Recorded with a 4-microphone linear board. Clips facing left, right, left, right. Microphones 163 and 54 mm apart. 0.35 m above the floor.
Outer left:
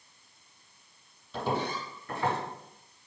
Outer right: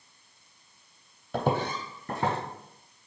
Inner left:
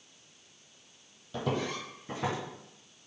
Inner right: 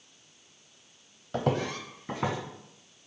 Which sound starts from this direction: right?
Footsteps, at 1.3 s.